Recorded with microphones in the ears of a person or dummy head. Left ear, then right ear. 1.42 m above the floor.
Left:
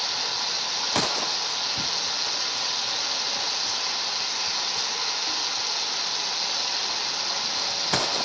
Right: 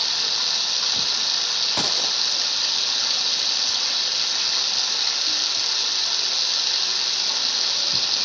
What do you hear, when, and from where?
0.0 s running water: 40° right (ahead or behind), 0.9 m